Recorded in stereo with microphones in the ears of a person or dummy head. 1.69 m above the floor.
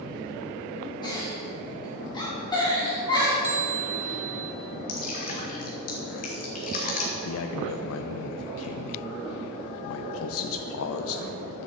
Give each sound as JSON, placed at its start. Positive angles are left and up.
{"t": 1.0, "sound": "a giggle", "side_deg": 20, "distance_m": 3.5}
{"t": 3.4, "sound": "a bell", "side_deg": -15, "distance_m": 1.1}
{"t": 4.9, "sound": "dripping", "side_deg": 40, "distance_m": 1.9}
{"t": 7.1, "sound": "a man speaking", "side_deg": 75, "distance_m": 0.6}